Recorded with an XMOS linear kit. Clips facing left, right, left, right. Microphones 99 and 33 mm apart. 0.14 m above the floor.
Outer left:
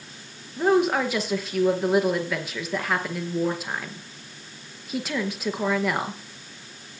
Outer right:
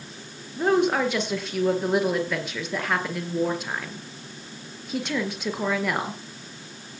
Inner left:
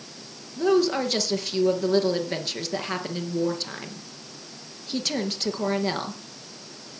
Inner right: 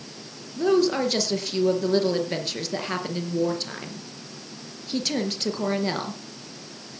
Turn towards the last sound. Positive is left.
turn(degrees=0)  # may be behind; listen again after turning